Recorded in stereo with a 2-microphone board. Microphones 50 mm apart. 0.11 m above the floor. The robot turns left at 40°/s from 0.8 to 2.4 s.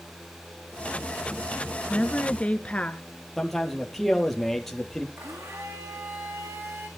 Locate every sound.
1.9 s a woman speaking: 25° left (ahead or behind), 1.2 m
3.4 s a man speaking: 5° left (ahead or behind), 3 m
5.2 s a blender: 70° right (ahead or behind), 5.5 m